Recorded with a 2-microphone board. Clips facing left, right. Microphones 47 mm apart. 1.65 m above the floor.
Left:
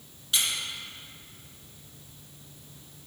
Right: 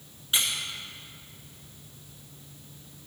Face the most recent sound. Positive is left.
turn(degrees=-25)  # may be behind; listen again after turning